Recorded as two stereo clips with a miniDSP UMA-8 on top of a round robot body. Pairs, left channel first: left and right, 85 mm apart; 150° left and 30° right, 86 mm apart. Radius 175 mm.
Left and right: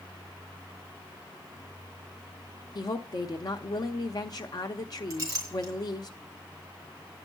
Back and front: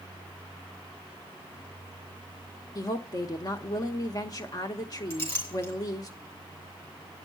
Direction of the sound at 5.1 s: 145° right.